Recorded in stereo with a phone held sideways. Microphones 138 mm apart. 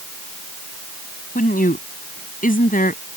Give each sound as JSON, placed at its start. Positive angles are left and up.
{"t": 1.4, "sound": "a woman speaking", "side_deg": 85}